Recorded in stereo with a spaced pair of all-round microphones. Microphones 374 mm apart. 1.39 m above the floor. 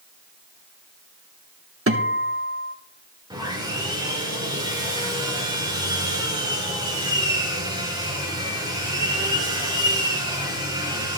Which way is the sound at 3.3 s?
10° right (ahead or behind).